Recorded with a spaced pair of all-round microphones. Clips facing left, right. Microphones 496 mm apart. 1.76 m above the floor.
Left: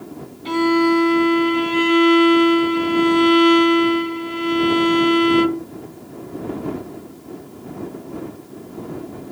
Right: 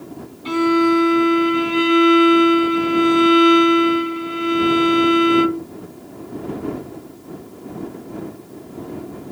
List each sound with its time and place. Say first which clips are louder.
0.5 s a violin: even; 25° right (ahead or behind)